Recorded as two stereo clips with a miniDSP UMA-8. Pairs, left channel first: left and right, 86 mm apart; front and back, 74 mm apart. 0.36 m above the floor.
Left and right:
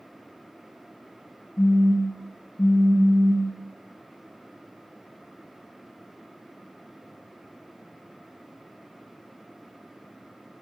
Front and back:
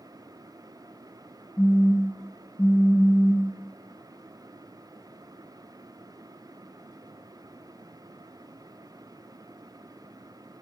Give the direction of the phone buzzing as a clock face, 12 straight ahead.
10 o'clock.